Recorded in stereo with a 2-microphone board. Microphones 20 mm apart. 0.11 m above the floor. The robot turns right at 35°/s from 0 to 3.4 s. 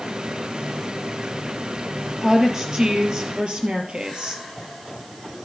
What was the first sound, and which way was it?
A woman speaking, 160° right.